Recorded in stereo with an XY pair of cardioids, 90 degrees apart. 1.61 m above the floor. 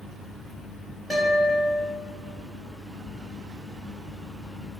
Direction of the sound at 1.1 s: 15° left.